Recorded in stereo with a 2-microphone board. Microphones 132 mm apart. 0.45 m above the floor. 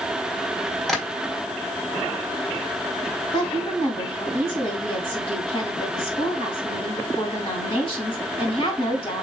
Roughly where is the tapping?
Centre.